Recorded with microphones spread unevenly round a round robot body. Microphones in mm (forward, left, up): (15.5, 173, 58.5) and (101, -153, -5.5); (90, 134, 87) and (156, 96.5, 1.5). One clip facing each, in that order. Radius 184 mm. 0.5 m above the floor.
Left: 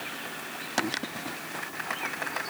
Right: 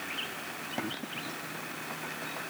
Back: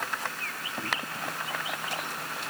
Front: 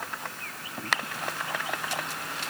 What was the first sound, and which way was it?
Only background noise.